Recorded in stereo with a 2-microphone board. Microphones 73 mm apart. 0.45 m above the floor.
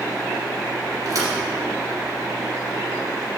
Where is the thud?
50° right (ahead or behind), 3 m.